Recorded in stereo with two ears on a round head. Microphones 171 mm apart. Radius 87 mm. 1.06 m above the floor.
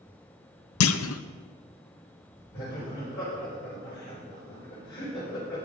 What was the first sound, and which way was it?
A clunk, 80° left.